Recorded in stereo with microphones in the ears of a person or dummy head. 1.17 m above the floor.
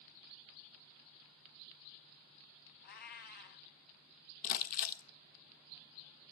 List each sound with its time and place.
2.8 s a cat meowing: 50° left (ahead or behind), 1.7 m
4.4 s crumpling: 50° left (ahead or behind), 1.1 m